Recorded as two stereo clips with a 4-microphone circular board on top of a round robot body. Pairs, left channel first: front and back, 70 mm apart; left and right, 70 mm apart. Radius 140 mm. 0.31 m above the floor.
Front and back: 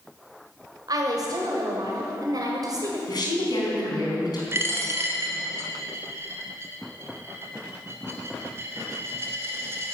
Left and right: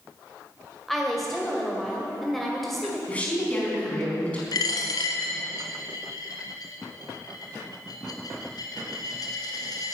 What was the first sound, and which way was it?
A woman speaking, straight behind.